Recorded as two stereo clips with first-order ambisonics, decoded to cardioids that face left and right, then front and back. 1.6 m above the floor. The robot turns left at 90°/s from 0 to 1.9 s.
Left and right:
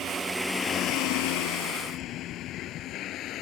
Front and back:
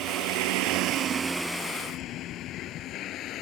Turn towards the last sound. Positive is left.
turn(degrees=45)